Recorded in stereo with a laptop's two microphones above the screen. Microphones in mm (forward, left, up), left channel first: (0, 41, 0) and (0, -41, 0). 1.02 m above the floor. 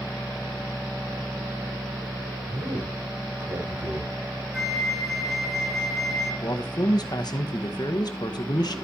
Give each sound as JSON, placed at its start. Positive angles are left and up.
{"t": 2.5, "sound": "a man speaking", "side_deg": -80, "distance_m": 4.0}
{"t": 4.5, "sound": "a flute", "side_deg": 0, "distance_m": 3.0}
{"t": 6.4, "sound": "a man speaking", "side_deg": 55, "distance_m": 1.2}